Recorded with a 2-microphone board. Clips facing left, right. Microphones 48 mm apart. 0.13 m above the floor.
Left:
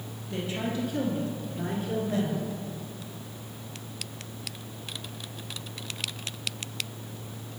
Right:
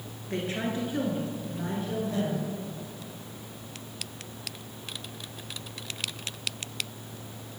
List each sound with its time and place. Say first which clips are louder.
0.3 s a woman speaking: right 1 dB; 50° right (ahead or behind), 2.0 m; by 2.5 s 35° left (ahead or behind), 2 m